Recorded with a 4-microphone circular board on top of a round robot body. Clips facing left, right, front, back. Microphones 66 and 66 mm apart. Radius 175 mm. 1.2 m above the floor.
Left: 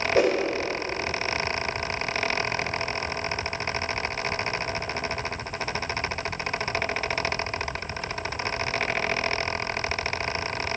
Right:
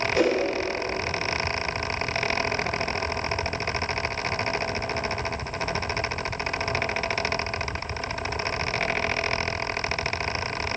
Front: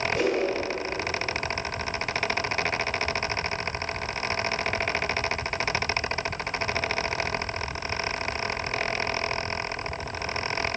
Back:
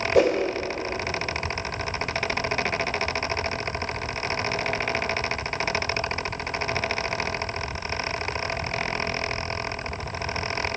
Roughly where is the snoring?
No snoring in this recording.